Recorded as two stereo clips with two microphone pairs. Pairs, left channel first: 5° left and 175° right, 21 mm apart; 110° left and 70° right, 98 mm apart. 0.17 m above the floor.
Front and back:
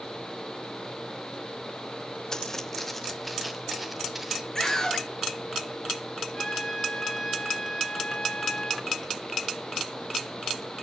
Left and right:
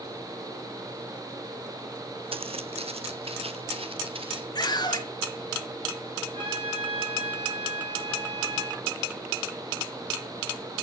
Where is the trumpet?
50° right, 4.5 m.